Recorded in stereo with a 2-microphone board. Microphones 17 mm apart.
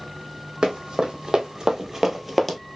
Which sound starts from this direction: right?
Running footsteps, at 0.6 s.